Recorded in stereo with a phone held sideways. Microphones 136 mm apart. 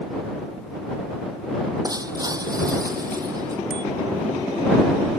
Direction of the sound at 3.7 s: 85° left.